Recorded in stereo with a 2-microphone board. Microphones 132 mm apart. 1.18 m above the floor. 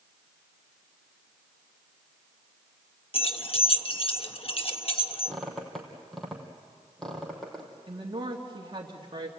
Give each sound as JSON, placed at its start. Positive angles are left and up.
{"t": 3.1, "sound": "keys jangling", "side_deg": 45, "distance_m": 1.2}
{"t": 5.3, "sound": "a squeak", "side_deg": 0, "distance_m": 3.5}
{"t": 7.9, "sound": "a woman speaking", "side_deg": -35, "distance_m": 2.5}